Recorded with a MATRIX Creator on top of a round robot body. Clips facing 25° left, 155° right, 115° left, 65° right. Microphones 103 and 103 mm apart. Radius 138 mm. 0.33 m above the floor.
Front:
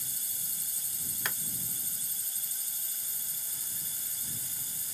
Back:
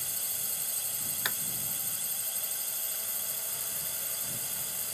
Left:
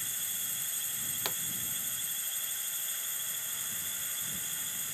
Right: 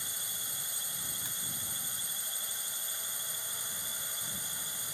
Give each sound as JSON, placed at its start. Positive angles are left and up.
{"t": 0.0, "sound": "a drone", "azimuth_deg": -140}
{"t": 1.2, "sound": "a pop", "azimuth_deg": 120}